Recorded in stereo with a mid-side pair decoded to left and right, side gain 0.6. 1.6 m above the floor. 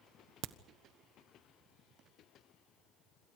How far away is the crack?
About 1.1 m.